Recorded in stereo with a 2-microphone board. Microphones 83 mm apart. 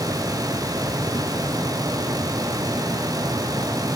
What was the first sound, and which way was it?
Only background noise.